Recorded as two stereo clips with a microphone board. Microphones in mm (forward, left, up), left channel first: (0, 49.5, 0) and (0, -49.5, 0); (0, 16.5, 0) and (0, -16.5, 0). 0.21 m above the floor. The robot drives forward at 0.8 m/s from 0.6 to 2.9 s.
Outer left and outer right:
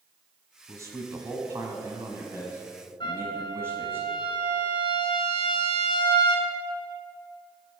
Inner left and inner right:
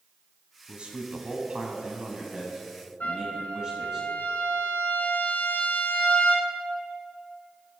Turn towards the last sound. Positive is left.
turn(degrees=60)  # may be behind; listen again after turning